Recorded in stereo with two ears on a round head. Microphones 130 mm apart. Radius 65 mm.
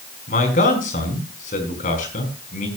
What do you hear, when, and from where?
0.3 s a man speaking: 60° left (ahead or behind), 4.5 m